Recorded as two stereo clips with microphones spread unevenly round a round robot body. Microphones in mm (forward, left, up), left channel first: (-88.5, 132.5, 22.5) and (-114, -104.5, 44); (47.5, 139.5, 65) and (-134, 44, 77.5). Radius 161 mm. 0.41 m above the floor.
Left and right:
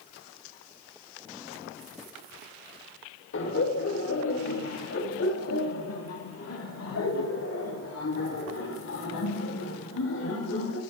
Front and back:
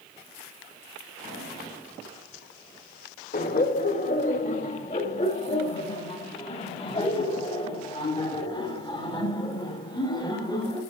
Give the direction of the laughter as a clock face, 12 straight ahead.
10 o'clock.